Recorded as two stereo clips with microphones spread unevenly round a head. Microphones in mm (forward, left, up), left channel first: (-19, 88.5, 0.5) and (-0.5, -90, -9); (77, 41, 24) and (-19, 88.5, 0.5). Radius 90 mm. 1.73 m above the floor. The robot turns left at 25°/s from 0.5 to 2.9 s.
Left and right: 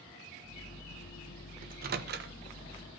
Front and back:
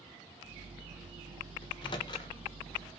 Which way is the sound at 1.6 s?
50° right.